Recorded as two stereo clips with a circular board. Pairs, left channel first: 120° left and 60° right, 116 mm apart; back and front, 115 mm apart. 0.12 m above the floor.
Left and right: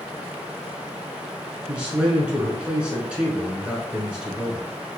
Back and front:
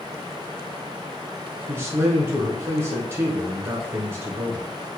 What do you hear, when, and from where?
1.7 s a man speaking: 5° left, 1.1 m